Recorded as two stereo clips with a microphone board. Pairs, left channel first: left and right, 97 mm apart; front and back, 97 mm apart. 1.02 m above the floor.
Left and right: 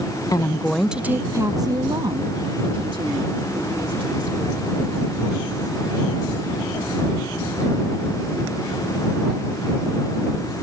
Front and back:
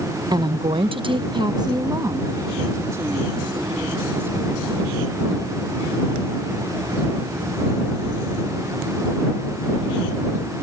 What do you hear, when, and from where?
0.3 s a woman speaking: 140° left; by 4.8 s 115° right